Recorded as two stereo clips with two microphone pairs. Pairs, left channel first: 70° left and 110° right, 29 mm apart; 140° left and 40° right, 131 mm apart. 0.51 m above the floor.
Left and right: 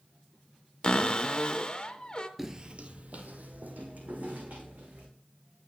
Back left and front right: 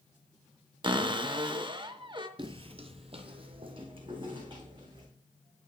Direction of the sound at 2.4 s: 20° right.